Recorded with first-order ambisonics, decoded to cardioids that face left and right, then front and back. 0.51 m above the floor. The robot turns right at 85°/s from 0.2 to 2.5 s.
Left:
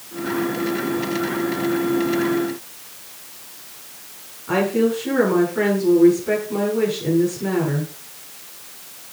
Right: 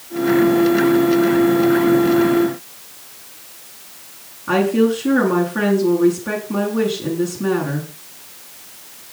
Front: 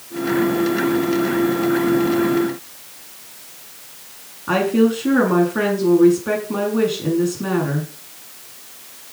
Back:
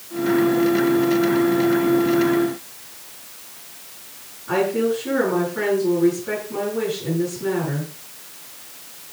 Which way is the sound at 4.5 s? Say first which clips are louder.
Right 3 dB, front 3 dB; 35° right.